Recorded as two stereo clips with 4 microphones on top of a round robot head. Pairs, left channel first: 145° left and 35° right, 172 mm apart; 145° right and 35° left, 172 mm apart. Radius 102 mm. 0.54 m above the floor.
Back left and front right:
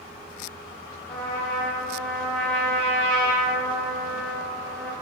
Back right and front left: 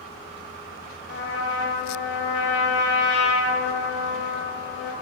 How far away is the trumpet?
About 0.6 m.